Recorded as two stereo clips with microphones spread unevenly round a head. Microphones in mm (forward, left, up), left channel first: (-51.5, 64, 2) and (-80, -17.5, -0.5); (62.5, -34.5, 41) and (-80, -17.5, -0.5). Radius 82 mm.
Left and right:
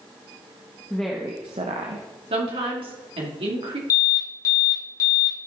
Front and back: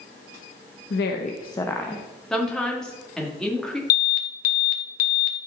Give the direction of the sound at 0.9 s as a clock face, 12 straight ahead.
12 o'clock.